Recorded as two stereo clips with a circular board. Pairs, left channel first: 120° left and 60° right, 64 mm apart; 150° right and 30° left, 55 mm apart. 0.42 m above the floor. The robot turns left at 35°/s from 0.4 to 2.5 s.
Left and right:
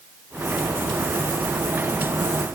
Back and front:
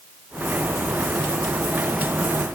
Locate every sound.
Only background noise.